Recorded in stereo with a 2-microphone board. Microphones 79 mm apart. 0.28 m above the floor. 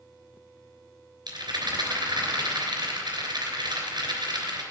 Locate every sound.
1.3 s a rattle: 75° right (ahead or behind), 3 m